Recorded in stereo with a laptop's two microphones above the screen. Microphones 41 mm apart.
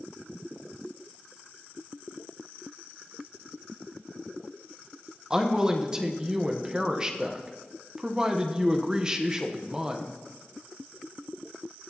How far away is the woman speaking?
About 0.9 m.